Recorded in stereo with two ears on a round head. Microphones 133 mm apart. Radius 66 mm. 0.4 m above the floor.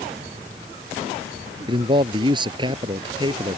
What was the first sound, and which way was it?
A man speaking, 35° right (ahead or behind).